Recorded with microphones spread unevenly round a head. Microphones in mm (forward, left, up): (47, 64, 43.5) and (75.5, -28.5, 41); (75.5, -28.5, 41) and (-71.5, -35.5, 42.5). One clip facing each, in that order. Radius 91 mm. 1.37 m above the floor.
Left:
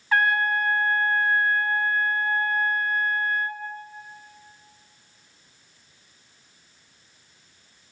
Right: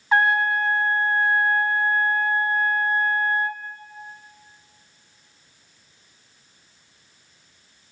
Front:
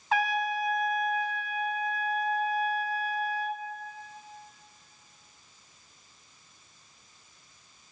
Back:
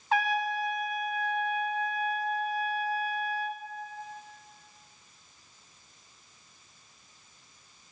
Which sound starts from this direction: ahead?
A trumpet, at 0.1 s.